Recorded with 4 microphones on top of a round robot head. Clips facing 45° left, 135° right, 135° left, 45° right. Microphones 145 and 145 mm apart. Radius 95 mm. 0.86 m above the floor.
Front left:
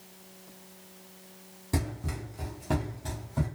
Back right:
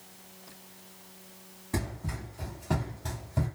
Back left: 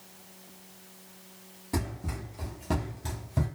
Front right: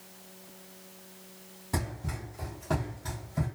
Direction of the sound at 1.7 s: 50° left.